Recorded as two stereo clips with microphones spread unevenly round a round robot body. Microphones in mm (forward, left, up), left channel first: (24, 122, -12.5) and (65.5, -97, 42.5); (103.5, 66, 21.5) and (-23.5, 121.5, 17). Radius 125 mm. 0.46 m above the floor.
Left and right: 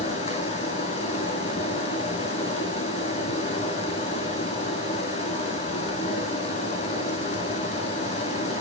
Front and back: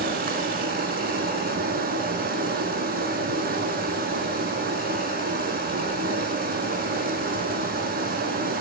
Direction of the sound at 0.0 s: 165° left.